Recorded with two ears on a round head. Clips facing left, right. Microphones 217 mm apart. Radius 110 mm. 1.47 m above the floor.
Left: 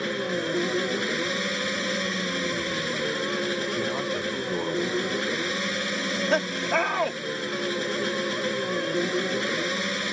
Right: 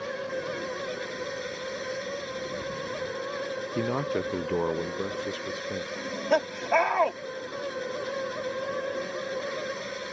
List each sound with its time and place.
0.0 s an engine running: 80° left
3.8 s a man speaking: 40° right (ahead or behind)
6.0 s laughter: 15° left (ahead or behind)